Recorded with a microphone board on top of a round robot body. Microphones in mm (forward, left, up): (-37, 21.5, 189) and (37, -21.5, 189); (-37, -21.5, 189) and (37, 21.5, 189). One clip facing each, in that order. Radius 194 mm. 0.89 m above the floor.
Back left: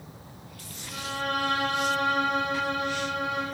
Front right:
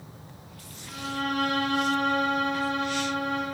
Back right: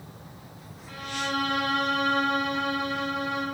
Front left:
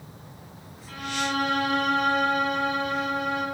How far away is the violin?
About 1.5 m.